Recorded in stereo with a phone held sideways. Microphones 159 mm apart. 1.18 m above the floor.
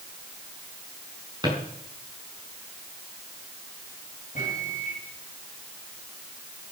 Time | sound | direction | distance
1.4 | a drawer | 25° right (ahead or behind) | 5.5 m
4.3 | a microwave | 55° left (ahead or behind) | 7.5 m